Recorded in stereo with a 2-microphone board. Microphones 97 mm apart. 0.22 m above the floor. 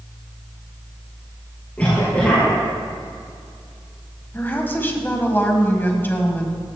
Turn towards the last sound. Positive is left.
turn(degrees=20)  # may be behind; listen again after turning